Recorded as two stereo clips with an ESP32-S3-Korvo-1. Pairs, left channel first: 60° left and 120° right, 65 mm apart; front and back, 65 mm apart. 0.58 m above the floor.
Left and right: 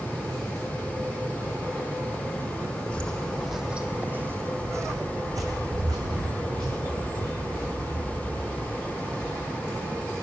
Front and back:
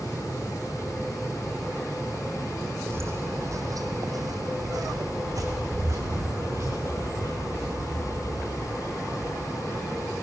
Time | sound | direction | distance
2.9 | footsteps | 130° left | 1.3 m